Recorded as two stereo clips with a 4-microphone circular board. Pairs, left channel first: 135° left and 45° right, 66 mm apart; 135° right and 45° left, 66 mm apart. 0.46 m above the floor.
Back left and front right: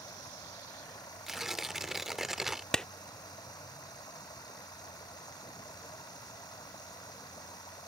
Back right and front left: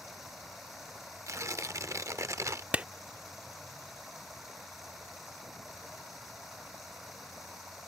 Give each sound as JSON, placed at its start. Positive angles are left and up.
{"t": 0.0, "sound": "running water", "azimuth_deg": 135}
{"t": 1.3, "sound": "tearing paper", "azimuth_deg": 40}
{"t": 2.7, "sound": "a clap", "azimuth_deg": 70}